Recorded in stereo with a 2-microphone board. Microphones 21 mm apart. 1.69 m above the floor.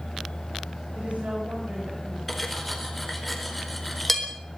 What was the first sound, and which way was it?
A woman speaking, 80° right.